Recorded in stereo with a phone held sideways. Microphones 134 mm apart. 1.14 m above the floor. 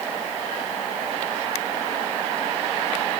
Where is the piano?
No piano in this recording.